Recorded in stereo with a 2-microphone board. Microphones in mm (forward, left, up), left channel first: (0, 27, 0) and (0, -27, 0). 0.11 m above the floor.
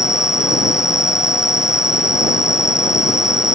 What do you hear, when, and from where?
0.0 s an insect: 70° left (ahead or behind)